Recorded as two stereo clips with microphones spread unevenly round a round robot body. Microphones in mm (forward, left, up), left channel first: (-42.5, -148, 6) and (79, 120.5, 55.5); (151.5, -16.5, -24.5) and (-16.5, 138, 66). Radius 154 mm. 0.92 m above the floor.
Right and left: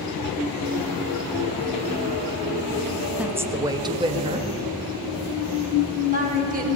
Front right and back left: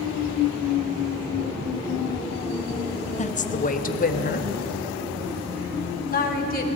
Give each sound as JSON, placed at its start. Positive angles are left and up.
{"t": 3.2, "sound": "a woman speaking", "azimuth_deg": -30, "distance_m": 1.2}